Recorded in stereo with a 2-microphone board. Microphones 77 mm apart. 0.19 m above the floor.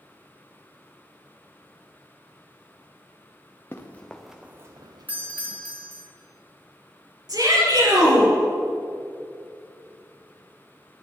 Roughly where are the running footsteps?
Left.